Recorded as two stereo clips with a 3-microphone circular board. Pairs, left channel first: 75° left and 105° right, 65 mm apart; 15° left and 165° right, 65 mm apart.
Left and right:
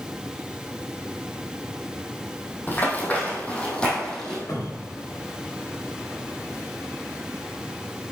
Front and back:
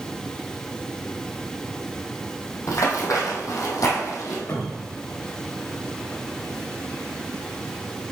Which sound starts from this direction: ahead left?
A cupboard door, at 4.5 s.